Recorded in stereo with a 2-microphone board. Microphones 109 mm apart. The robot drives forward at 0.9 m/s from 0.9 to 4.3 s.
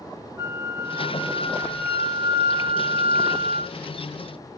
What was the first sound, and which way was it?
A flute, 20° right (ahead or behind).